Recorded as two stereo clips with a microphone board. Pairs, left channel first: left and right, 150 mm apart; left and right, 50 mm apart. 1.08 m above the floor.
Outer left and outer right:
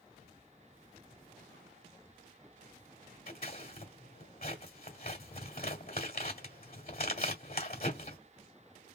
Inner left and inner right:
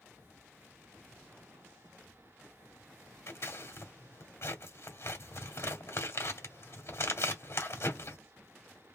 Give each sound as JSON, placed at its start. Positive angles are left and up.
{"t": 3.3, "sound": "scissors", "side_deg": 65, "distance_m": 1.7}